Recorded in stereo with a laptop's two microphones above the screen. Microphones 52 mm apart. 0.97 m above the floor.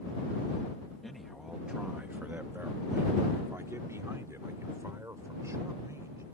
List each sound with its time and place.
1.0 s a man speaking: 5° left (ahead or behind); by 6.2 s 80° right